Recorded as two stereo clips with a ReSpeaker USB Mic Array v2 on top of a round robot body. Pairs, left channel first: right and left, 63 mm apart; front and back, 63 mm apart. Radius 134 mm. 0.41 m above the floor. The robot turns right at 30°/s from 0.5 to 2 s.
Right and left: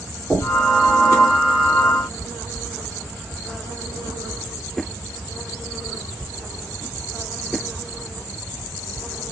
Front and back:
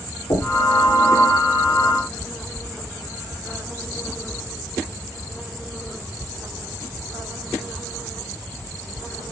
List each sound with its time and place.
0.3 s knocking: 15° left, 4 m; by 0.7 s 25° left, 4 m